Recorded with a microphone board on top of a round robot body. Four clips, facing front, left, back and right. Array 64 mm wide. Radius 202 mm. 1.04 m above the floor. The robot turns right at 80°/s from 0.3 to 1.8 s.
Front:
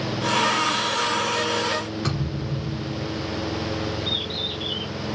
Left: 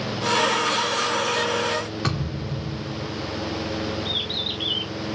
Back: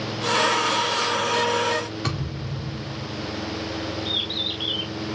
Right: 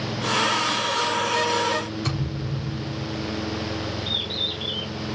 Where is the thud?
90° left, 3 m.